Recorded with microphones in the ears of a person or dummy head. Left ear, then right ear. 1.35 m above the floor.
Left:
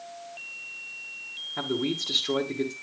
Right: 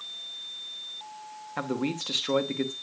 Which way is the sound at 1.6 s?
35° right (ahead or behind).